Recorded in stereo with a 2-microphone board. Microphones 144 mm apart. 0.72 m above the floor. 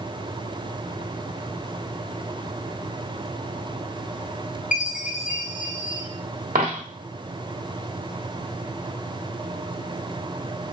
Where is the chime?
70° left (ahead or behind), 1.3 m.